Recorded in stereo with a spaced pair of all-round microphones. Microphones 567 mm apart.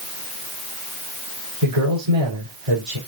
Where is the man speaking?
85° right, 5.5 m.